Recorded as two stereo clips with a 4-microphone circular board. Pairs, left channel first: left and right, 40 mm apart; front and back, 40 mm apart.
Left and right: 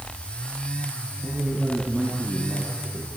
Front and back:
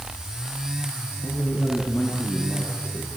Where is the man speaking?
10° right, 6.5 m; by 3.1 s 10° left, 6.5 m.